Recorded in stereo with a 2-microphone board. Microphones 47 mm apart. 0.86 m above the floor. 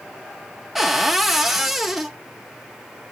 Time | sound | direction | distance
0.8 | a cupboard door | 5° right (ahead or behind) | 0.6 m